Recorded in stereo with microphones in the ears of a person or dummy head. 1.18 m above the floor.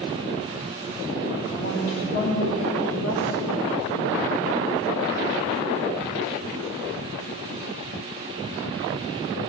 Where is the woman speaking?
55° left (ahead or behind), 2.5 m; by 3.7 s 85° left, 2.5 m.